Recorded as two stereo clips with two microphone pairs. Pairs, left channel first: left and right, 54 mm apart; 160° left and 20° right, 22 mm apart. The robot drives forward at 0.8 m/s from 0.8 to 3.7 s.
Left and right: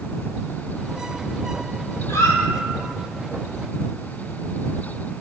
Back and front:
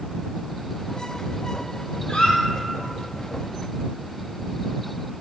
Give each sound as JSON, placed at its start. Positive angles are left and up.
{"t": 2.1, "sound": "a squeak", "azimuth_deg": 120, "distance_m": 0.8}